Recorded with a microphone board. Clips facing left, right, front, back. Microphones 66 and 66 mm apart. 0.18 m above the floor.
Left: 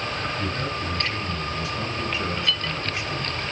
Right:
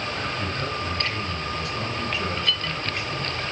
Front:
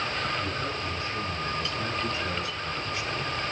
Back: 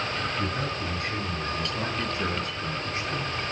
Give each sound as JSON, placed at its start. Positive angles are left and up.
{"t": 0.4, "sound": "a man speaking", "azimuth_deg": 170, "distance_m": 3.5}